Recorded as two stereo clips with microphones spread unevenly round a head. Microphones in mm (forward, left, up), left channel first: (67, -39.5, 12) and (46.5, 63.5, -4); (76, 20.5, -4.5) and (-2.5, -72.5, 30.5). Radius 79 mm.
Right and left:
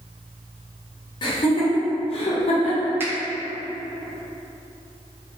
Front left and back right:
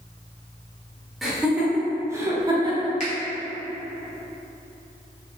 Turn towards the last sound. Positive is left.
turn(degrees=30)